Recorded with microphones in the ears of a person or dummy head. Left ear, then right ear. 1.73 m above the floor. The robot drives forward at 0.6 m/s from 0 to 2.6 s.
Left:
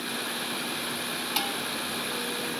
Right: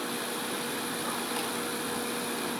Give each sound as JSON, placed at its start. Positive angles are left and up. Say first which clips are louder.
{"t": 1.4, "sound": "dishes clattering", "louder": "left 4 dB", "side_deg": 55, "distance_m": 3.5}